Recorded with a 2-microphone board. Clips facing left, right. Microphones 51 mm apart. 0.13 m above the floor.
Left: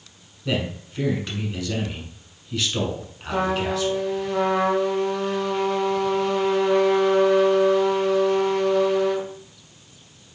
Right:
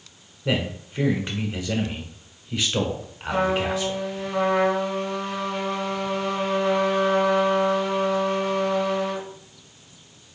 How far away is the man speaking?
About 1.1 m.